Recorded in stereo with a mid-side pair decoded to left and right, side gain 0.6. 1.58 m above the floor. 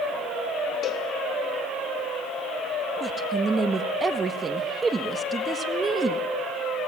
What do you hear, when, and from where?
0.8 s a cowbell: 45° left, 2 m
3.0 s a woman speaking: 25° right, 1.7 m